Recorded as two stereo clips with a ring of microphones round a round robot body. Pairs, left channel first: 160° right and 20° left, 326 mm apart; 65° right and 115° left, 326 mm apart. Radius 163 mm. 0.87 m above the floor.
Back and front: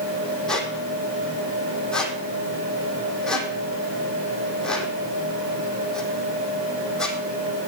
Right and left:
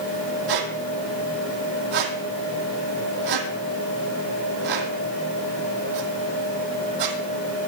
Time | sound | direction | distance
0.5 | a squeak | 115° left | 2.5 m